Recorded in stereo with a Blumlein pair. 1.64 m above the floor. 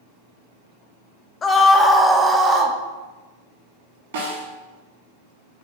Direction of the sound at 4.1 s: 55° right.